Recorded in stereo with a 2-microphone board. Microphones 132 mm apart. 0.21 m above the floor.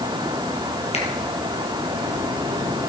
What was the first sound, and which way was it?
A finger snap, 50° left (ahead or behind).